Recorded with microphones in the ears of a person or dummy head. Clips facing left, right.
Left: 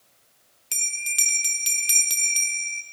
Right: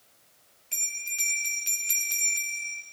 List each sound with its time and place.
0.7 s a bell: 60° left (ahead or behind), 0.6 m